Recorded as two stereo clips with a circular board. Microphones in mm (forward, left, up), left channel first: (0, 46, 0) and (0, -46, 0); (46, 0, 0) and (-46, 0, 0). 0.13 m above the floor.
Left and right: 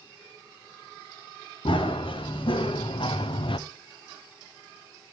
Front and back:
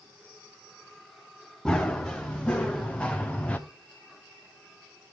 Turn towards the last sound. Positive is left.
turn(degrees=75)